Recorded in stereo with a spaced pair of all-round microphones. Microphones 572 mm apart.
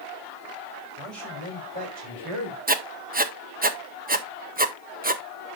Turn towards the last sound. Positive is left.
turn(degrees=-15)  # may be behind; listen again after turning